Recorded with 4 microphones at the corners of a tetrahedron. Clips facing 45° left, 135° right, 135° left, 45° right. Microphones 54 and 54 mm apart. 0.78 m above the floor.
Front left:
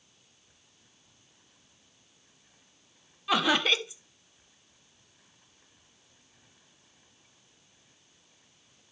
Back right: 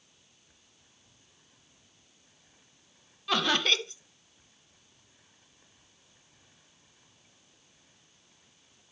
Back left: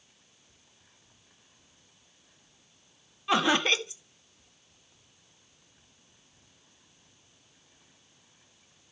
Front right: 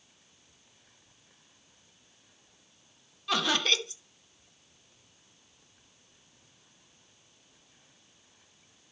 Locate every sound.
3.3 s laughter: 110° left, 0.8 m